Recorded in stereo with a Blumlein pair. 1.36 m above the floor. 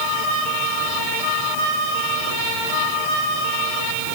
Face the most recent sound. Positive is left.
No sound to turn to.